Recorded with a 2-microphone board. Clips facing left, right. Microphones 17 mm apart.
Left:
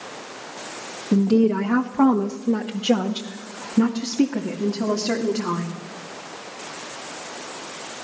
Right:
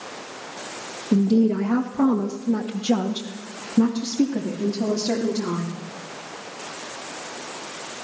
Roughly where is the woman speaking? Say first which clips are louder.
Left 1 dB; left.